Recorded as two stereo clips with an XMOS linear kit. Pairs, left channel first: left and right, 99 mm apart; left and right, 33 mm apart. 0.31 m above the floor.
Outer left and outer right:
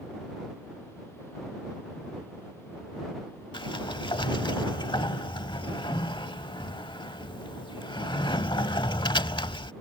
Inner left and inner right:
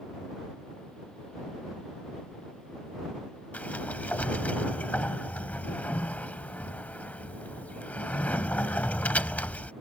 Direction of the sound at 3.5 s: 55° left (ahead or behind).